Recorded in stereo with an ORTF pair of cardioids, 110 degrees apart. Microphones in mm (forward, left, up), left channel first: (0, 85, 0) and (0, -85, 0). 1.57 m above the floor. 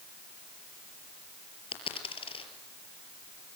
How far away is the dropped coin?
About 5 m.